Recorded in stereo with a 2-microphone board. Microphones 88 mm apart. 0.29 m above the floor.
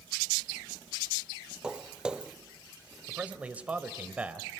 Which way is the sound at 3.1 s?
15° right (ahead or behind).